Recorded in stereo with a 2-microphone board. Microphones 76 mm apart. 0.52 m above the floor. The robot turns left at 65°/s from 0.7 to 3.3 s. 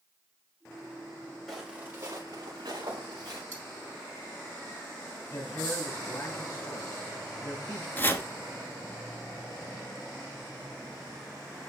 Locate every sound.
1.5 s footsteps: centre (ahead or behind), 5.5 m; by 3.4 s 50° right (ahead or behind), 4.5 m
3.5 s cutlery clinking: 20° left (ahead or behind), 3 m
5.3 s a man speaking: 30° left (ahead or behind), 5 m
8.0 s chopping: 25° left (ahead or behind), 1.2 m